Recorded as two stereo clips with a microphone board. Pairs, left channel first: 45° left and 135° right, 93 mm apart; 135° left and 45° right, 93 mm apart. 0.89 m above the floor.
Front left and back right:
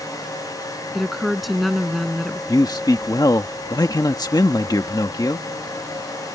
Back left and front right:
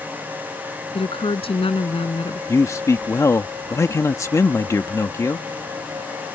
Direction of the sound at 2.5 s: 85° left.